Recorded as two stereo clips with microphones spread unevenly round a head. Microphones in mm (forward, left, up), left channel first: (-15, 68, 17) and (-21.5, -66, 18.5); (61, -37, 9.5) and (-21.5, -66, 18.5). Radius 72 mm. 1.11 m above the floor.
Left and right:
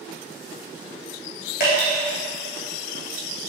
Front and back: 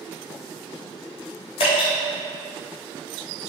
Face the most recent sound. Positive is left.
turn(degrees=60)